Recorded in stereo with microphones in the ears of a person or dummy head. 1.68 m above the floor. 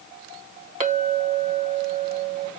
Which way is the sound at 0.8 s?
40° right (ahead or behind).